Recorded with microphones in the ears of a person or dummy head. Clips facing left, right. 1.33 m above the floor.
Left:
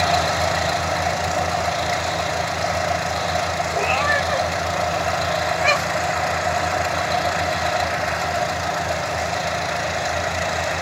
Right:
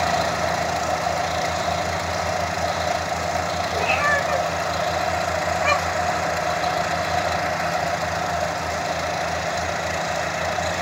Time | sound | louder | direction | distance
3.7 | a cat meowing | even | 40° right (ahead or behind) | 2 m